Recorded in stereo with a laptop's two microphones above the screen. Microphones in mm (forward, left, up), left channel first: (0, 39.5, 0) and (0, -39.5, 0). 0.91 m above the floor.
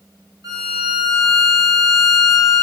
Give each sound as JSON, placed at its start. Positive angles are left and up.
{"t": 0.4, "sound": "a violin", "side_deg": -55, "distance_m": 1.3}